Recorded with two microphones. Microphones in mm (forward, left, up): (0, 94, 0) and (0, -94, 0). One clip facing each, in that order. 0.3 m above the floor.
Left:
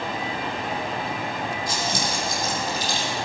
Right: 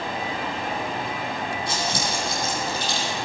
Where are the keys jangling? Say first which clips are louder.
Even; 65° right (ahead or behind), 6 m; by 3.1 s 60° right (ahead or behind), 7 m.